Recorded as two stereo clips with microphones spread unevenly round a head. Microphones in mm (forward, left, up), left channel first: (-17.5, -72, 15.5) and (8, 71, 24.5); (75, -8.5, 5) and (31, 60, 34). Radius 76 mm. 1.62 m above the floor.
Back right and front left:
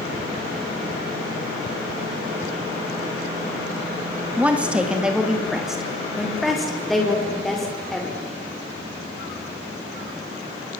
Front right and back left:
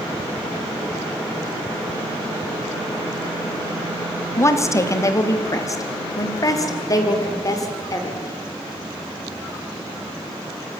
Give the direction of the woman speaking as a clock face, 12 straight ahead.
12 o'clock.